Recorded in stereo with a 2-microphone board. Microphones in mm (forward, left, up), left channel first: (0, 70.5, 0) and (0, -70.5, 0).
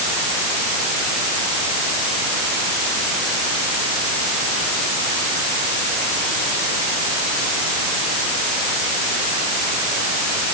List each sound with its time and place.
Only background noise.